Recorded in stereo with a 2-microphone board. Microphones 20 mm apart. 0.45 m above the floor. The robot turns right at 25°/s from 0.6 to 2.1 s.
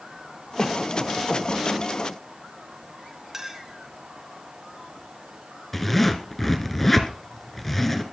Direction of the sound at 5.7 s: 5° left (ahead or behind).